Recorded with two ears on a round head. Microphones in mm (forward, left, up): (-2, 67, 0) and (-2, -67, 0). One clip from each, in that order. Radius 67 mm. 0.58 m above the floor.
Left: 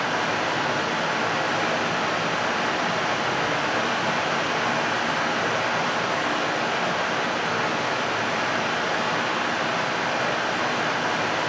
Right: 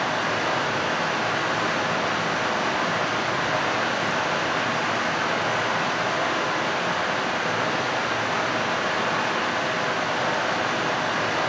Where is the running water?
5° left (ahead or behind), 1.8 m.